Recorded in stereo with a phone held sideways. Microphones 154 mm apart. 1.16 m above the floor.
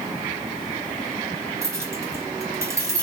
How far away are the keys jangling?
About 1.0 m.